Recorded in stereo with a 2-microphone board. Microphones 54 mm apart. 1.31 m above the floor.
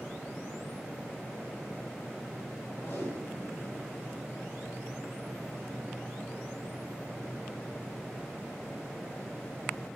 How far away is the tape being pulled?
About 9 m.